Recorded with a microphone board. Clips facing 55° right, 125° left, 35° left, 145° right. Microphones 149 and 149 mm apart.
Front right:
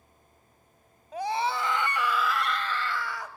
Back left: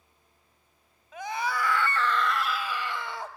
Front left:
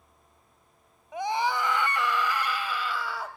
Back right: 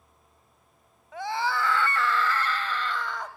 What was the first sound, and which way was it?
A scream, 30° right.